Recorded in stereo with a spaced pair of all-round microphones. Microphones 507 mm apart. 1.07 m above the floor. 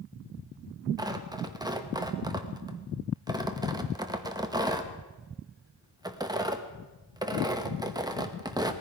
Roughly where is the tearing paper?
Centre.